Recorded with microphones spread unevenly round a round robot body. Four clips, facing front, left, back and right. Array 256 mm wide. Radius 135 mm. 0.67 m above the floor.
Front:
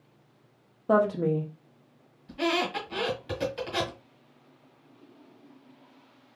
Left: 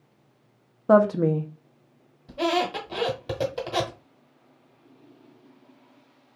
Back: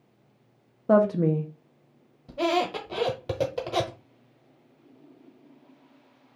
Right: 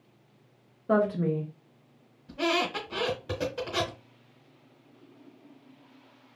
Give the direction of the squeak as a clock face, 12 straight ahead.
7 o'clock.